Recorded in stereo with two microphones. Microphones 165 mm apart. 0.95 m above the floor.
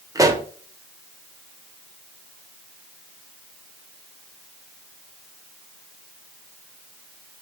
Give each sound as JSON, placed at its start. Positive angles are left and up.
{"t": 0.1, "sound": "a pop", "side_deg": -20, "distance_m": 0.6}